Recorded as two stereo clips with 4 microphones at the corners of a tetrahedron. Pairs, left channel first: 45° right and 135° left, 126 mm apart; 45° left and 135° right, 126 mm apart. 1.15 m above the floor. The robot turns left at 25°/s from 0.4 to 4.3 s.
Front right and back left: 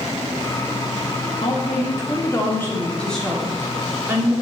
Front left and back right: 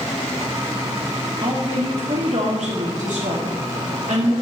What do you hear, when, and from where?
1.4 s a woman speaking: 85° right, 2.5 m; by 4.3 s 160° right, 2.5 m